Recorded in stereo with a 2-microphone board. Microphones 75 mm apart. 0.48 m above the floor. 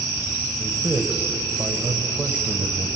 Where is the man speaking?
25° right (ahead or behind), 1.9 m.